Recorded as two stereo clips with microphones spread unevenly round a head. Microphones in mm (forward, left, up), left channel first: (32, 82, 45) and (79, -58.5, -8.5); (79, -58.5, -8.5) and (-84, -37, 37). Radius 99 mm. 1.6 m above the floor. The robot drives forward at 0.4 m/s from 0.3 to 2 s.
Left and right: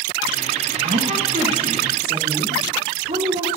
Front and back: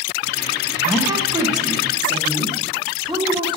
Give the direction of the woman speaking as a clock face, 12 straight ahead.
4 o'clock.